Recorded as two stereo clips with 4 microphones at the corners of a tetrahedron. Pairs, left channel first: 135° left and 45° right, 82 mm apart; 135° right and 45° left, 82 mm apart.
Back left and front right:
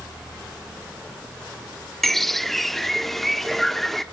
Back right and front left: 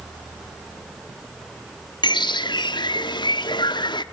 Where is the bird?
140° right, 1.1 m.